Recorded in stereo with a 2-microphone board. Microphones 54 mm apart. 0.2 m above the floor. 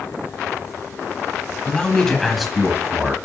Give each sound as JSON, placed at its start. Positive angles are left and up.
{"t": 1.6, "sound": "a man speaking", "side_deg": 20, "distance_m": 1.1}